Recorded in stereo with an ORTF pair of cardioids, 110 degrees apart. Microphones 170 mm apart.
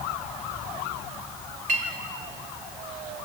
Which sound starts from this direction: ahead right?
A clink, at 1.7 s.